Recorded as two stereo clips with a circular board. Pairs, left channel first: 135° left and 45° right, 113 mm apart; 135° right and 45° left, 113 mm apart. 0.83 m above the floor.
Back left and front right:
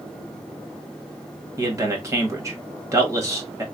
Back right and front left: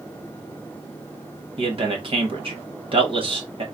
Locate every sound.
1.6 s a man speaking: 15° left, 1.3 m